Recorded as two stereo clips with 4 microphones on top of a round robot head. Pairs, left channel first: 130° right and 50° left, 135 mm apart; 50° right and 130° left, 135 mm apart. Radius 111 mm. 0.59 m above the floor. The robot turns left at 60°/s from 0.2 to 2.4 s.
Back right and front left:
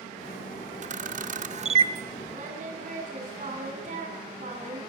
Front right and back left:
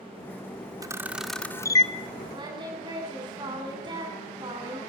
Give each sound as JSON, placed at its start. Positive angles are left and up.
{"t": 0.8, "sound": "a camera shutter", "azimuth_deg": 70, "distance_m": 1.7}
{"t": 2.3, "sound": "singing", "azimuth_deg": 80, "distance_m": 7.5}